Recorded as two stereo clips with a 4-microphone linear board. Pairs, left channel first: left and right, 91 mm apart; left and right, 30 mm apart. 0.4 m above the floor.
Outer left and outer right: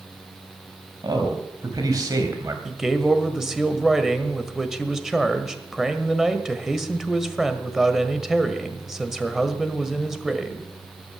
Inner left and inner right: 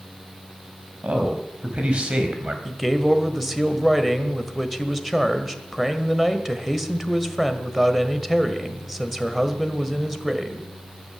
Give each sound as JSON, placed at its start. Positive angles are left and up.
{"t": 1.0, "sound": "a man speaking", "side_deg": -55, "distance_m": 3.0}
{"t": 2.6, "sound": "a man speaking", "side_deg": -5, "distance_m": 1.4}